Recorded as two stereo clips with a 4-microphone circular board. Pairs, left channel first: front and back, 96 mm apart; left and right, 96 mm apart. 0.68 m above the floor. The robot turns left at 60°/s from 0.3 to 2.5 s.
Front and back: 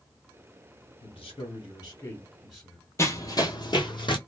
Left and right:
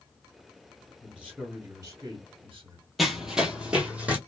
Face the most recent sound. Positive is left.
turn(degrees=-20)